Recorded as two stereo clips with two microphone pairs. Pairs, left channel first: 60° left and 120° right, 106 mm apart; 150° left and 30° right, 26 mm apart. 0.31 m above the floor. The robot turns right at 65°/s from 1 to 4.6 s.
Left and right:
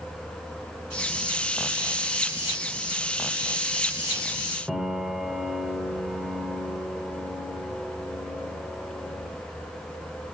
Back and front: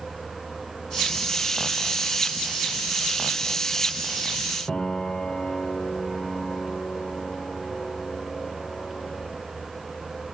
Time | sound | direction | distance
4.7 | a piano | 160° left | 1.3 m